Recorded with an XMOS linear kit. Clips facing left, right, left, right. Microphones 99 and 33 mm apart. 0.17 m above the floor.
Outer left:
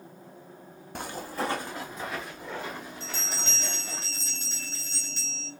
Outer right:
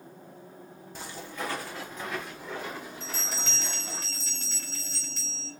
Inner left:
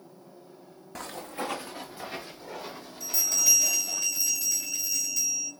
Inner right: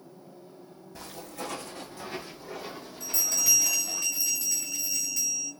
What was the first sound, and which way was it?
Footsteps, 65° left (ahead or behind).